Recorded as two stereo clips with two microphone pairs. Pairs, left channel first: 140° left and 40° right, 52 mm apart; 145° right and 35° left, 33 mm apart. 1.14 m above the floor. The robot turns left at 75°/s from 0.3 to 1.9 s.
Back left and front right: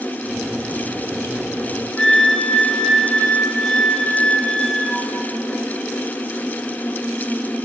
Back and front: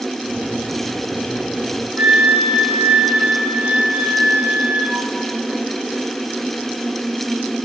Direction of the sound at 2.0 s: 60° left.